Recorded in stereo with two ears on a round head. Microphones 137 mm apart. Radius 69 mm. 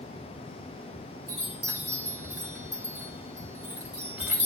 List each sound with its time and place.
1.3 s a chime: 10° right (ahead or behind), 2.5 m